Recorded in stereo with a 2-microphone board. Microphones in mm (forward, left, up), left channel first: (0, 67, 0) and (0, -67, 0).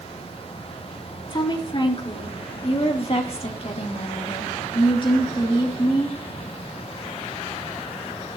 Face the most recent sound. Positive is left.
turn(degrees=25)  # may be behind; listen again after turning